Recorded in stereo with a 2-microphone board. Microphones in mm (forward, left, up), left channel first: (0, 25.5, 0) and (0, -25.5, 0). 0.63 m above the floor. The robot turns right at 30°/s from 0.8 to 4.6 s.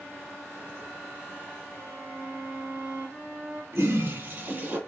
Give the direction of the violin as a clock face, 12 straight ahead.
7 o'clock.